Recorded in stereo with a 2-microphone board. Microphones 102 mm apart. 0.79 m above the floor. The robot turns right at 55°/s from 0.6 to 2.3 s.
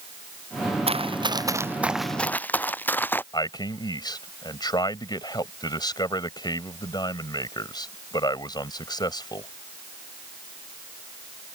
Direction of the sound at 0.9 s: 70° right (ahead or behind).